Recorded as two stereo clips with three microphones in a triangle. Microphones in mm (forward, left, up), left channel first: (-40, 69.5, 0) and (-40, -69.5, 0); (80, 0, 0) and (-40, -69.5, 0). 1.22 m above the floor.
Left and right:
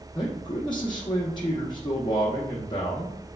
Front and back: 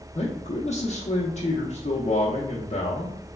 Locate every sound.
0.1 s a man speaking: 45° left, 0.5 m